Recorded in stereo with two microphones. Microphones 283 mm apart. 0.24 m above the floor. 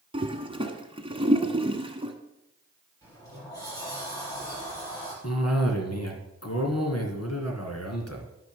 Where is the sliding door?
15° left (ahead or behind), 6 m.